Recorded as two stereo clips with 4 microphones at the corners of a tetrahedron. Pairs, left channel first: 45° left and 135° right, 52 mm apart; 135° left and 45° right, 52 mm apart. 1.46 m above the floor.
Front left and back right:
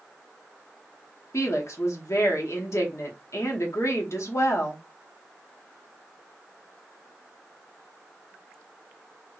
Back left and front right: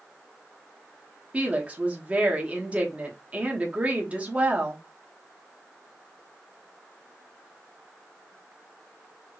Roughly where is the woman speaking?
Ahead.